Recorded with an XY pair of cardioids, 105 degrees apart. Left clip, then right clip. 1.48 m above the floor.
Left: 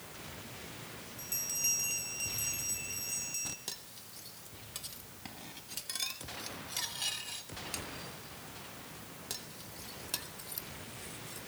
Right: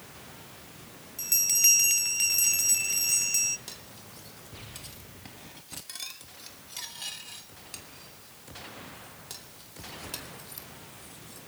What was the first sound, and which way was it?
A bell, 70° right.